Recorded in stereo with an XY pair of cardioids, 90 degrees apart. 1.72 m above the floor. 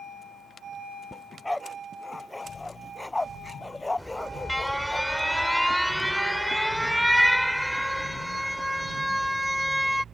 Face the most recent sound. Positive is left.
turn(degrees=5)